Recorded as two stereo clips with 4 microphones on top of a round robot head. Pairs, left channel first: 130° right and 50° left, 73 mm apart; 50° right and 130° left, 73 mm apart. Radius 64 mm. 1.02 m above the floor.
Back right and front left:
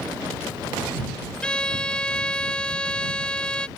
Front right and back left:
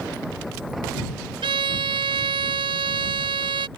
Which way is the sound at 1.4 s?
150° left.